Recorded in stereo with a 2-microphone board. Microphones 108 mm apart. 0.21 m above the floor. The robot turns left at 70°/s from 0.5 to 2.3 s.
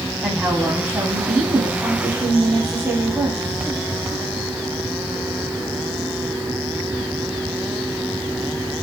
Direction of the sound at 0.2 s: 20° right.